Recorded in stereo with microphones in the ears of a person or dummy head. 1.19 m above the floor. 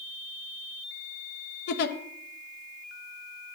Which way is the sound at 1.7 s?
60° left (ahead or behind).